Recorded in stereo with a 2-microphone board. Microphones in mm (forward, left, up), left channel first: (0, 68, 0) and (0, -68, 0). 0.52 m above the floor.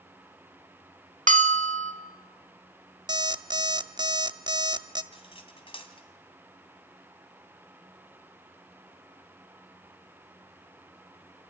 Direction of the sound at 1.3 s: 70° right (ahead or behind).